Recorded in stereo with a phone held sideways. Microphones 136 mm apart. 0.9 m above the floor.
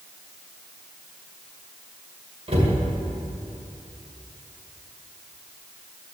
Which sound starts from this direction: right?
A cupboard door, at 2.5 s.